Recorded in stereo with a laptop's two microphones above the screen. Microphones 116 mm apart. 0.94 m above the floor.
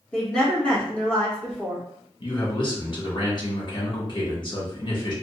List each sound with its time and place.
0.1 s a woman speaking: 10° left (ahead or behind), 1.2 m
2.2 s a man speaking: 45° left (ahead or behind), 1.1 m